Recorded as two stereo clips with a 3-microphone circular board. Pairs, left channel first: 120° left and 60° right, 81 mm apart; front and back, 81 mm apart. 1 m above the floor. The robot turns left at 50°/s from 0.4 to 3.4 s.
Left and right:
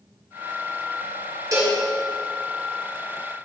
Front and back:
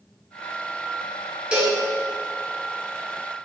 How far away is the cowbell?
About 2 m.